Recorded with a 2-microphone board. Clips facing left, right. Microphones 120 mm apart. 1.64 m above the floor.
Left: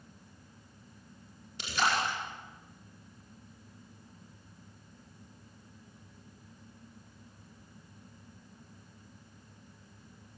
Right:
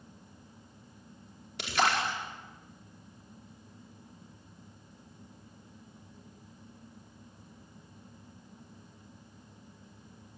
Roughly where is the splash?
Right.